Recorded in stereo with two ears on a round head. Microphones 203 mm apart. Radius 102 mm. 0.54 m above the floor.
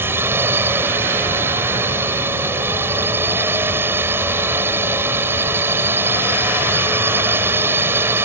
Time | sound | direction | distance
0.0 | a drone | 10° right (ahead or behind) | ?